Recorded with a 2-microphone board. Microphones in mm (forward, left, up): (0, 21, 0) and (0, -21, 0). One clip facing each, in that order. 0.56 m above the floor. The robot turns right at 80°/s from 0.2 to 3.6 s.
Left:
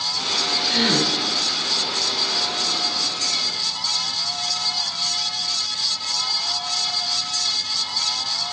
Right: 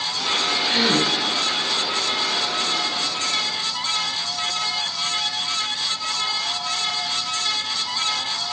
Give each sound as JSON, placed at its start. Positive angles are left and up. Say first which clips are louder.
{"t": 0.7, "sound": "a gasp", "louder": "right 1 dB", "azimuth_deg": -25, "distance_m": 2.0}